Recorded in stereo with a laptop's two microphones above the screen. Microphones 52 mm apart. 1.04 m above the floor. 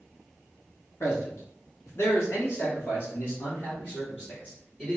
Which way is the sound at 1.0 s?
60° left (ahead or behind).